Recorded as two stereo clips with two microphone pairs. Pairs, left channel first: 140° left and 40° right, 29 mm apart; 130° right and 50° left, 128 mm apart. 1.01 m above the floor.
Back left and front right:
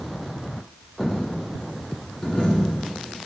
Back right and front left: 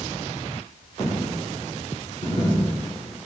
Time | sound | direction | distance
1.0 | a dropped coin | 155° right | 1.6 m